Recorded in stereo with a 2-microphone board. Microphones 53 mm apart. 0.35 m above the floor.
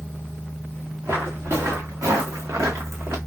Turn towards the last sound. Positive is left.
turn(degrees=-55)  # may be behind; listen again after turning